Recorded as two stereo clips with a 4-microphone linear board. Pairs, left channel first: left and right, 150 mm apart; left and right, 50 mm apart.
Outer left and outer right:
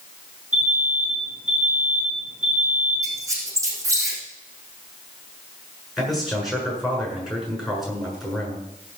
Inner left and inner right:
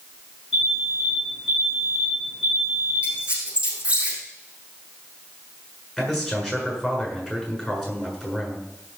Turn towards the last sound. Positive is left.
turn(degrees=0)  # may be behind; listen again after turning